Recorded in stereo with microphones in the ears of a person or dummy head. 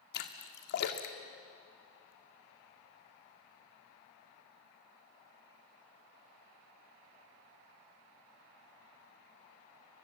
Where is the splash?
60° left (ahead or behind), 1.9 m.